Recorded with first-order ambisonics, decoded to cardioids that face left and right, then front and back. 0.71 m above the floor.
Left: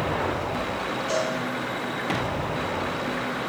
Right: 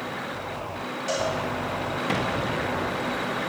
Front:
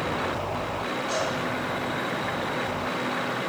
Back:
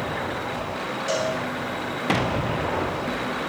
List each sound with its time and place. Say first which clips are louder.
1.1 s a cowbell: right 1 dB, back 4 dB; 145° right, 6.5 m